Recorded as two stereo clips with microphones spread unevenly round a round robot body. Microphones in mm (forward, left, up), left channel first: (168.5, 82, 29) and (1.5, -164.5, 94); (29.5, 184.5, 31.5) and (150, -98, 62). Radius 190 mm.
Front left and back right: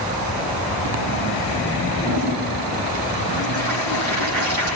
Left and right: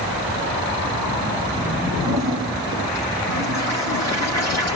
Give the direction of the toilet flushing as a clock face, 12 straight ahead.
6 o'clock.